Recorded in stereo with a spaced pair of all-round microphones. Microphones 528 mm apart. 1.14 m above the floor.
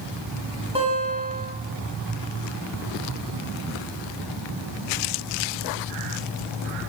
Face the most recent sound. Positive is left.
turn(degrees=-10)  # may be behind; listen again after turning